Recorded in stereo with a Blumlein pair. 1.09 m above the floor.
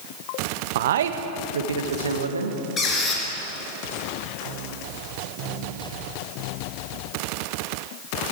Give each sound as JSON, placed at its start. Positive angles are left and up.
{"t": 0.8, "sound": "a man speaking", "azimuth_deg": -55, "distance_m": 0.7}
{"t": 2.8, "sound": "a squeak", "azimuth_deg": 20, "distance_m": 3.0}